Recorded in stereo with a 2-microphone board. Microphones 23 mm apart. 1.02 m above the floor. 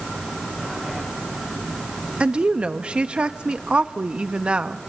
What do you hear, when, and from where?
2.2 s a woman speaking: 50° right (ahead or behind), 1.1 m